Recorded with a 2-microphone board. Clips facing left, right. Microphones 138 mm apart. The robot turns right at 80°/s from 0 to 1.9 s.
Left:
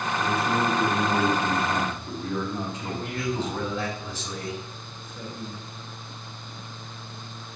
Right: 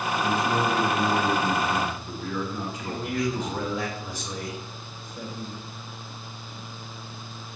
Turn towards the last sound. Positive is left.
turn(degrees=-15)  # may be behind; listen again after turning